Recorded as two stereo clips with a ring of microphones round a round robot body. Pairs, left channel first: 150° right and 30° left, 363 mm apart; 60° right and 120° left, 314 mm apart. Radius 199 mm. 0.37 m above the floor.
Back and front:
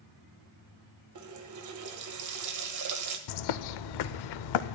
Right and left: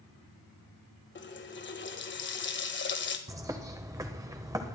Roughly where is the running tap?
Ahead.